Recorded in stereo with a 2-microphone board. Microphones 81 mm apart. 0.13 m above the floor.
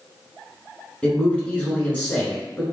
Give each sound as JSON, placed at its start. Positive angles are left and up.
{"t": 1.0, "sound": "a man speaking", "side_deg": 15, "distance_m": 1.4}